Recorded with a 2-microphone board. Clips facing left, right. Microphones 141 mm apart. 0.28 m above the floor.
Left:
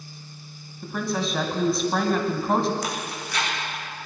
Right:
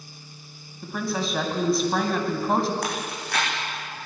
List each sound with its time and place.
0.8 s a woman speaking: centre (ahead or behind), 2.0 m
2.8 s chewing: 60° right (ahead or behind), 6.5 m